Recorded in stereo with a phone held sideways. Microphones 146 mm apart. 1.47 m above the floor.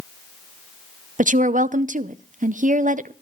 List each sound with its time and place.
1.2 s a woman speaking: 60° right (ahead or behind), 0.7 m